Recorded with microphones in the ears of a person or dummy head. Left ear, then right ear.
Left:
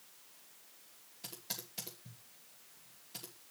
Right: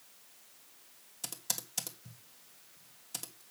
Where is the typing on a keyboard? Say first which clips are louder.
Right 6 dB; 45° right (ahead or behind), 1.4 m.